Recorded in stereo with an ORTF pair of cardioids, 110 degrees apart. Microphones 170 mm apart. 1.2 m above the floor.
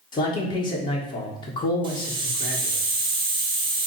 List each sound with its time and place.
0.1 s a man speaking: 30° left, 1.2 m
1.8 s a hiss: 30° right, 1.0 m